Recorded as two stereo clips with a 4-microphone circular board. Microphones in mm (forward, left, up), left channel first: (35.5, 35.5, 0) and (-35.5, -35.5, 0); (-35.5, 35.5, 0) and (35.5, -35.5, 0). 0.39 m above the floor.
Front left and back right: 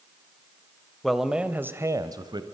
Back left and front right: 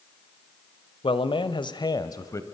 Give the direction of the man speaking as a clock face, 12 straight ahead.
8 o'clock.